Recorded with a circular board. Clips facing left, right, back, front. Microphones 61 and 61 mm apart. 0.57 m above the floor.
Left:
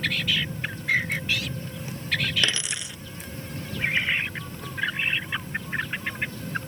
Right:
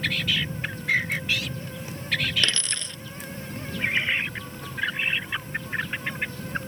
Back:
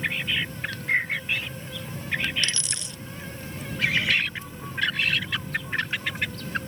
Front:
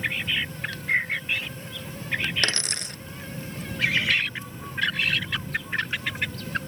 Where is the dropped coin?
15° left.